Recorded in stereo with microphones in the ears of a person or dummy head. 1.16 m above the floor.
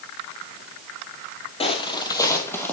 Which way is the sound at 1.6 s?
30° left (ahead or behind).